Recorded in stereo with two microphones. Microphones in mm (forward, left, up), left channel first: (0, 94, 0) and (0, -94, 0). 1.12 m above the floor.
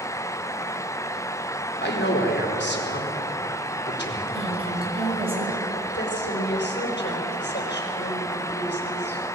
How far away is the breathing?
No breathing in this recording.